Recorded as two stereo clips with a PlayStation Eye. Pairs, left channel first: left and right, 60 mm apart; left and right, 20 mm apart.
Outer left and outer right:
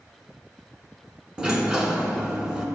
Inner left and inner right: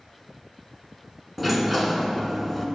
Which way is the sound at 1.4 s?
15° right (ahead or behind).